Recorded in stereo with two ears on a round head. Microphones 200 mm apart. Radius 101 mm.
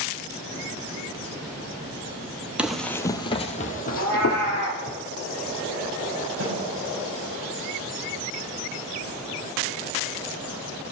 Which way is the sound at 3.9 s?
75° right (ahead or behind).